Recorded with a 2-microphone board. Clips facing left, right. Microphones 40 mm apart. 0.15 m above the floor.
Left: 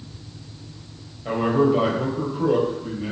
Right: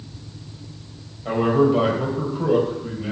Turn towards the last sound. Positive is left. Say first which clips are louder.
# right 1 dB
turn(degrees=10)  # may be behind; listen again after turning